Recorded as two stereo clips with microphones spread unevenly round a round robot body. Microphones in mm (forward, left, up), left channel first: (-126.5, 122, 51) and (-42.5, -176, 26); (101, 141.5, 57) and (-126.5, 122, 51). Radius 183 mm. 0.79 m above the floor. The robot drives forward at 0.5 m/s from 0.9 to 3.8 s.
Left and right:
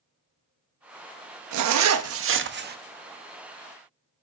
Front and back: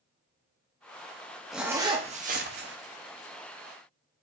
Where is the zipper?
85° right, 0.7 m; by 2.8 s 130° right, 1.0 m.